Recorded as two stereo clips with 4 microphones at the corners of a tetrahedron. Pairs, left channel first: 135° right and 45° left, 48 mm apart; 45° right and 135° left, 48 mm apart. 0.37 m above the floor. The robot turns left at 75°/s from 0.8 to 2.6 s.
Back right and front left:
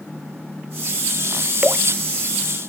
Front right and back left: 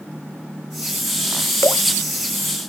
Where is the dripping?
25° right; by 1.9 s 45° right.